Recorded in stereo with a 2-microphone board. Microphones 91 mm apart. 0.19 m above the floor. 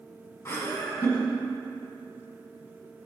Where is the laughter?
30° left (ahead or behind), 1.4 m.